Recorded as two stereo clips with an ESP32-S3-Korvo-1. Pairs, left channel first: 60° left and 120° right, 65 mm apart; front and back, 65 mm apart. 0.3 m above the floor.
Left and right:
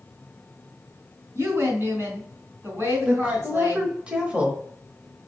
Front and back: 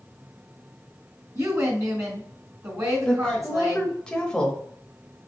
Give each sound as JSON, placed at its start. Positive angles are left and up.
{"t": 1.4, "sound": "a woman speaking", "azimuth_deg": -160, "distance_m": 2.5}
{"t": 3.0, "sound": "a woman speaking", "azimuth_deg": -65, "distance_m": 1.0}